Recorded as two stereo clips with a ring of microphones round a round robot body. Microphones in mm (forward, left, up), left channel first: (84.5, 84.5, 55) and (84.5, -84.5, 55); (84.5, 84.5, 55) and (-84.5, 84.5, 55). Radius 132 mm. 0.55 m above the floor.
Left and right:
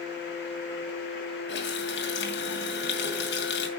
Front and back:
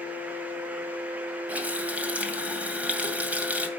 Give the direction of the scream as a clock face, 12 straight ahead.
No scream in this recording.